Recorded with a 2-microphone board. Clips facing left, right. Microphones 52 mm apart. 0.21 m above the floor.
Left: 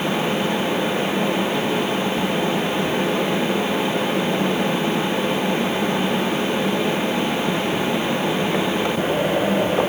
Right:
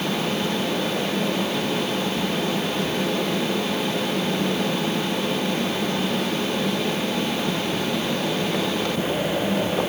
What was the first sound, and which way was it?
Only background noise.